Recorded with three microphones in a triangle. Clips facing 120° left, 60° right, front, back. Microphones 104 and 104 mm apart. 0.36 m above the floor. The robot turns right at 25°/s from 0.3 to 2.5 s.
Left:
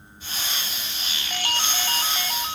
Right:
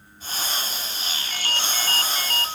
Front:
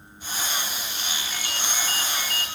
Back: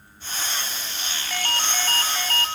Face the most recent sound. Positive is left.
turn(degrees=-160)